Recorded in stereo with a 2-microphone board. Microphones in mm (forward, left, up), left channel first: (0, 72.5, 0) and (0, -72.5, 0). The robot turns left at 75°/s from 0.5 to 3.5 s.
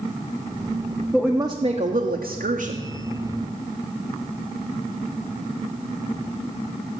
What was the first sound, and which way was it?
A woman speaking, 5° left.